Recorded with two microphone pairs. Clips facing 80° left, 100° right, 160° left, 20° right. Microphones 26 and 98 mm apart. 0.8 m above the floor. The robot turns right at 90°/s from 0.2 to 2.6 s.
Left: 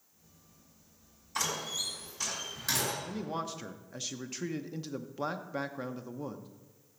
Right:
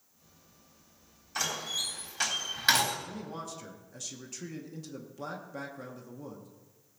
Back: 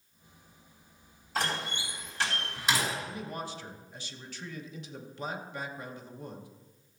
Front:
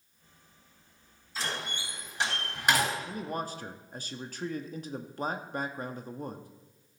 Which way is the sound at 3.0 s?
25° left.